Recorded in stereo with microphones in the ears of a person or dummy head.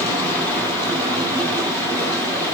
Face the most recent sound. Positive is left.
turn(degrees=10)  # may be behind; listen again after turning